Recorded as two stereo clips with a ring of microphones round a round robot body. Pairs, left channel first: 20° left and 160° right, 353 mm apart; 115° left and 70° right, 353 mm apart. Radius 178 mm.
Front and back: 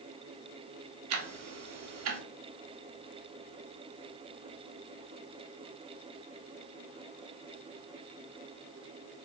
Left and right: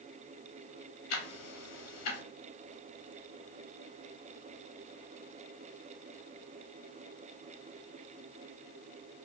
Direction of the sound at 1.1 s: 160° left.